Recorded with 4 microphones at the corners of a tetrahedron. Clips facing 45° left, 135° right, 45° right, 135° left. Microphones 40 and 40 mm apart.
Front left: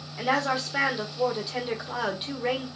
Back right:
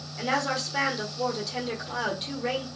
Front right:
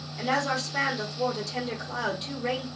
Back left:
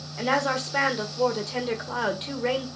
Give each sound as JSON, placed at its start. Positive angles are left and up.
{"t": 0.2, "sound": "a woman speaking", "azimuth_deg": 115, "distance_m": 1.4}